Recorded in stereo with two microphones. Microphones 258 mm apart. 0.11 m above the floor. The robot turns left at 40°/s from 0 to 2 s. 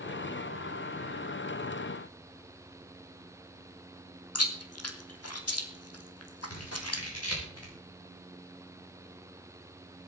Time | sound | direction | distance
4.3 | chewing | 70° left (ahead or behind) | 1.8 m
6.5 | scissors | 70° left (ahead or behind) | 7 m